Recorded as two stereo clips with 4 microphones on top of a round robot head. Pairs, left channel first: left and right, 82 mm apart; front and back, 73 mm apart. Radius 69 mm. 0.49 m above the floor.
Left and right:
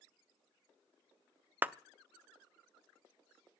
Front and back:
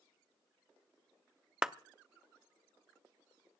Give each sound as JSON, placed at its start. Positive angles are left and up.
{"t": 1.6, "sound": "a clap", "azimuth_deg": -120, "distance_m": 0.7}